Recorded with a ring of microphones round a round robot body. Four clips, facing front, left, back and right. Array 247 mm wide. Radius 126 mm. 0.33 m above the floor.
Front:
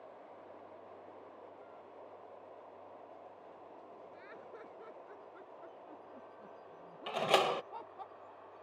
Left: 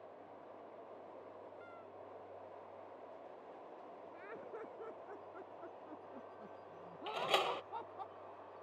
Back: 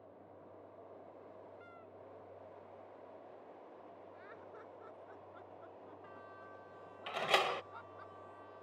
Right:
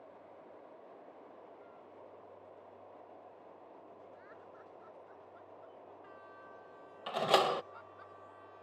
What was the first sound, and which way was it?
Laughter, 80° left.